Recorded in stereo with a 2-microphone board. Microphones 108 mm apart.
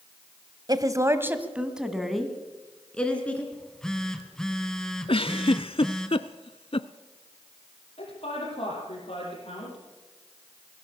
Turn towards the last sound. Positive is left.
turn(degrees=60)  # may be behind; listen again after turning